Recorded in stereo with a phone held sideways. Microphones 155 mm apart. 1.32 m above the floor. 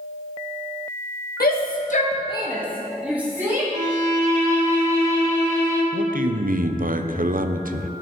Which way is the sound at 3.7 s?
45° right (ahead or behind).